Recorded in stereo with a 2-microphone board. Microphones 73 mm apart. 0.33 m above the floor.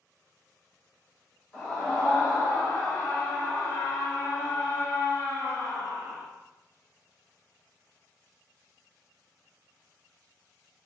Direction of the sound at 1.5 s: 15° left (ahead or behind).